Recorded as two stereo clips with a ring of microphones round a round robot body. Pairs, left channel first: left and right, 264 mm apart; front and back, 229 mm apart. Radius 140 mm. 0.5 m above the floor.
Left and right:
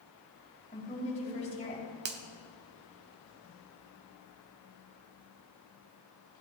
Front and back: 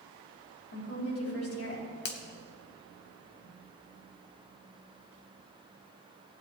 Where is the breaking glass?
No breaking glass in this recording.